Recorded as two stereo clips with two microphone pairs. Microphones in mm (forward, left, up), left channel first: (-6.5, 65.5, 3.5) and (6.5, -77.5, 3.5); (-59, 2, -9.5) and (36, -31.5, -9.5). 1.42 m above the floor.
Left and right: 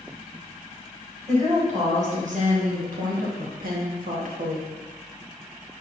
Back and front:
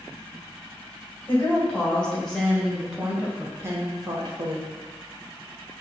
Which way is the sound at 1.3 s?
125° right.